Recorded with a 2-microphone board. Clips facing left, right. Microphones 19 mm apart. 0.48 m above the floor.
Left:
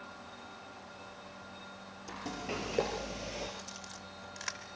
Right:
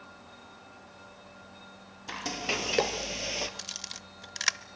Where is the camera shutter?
75° right (ahead or behind), 0.7 m.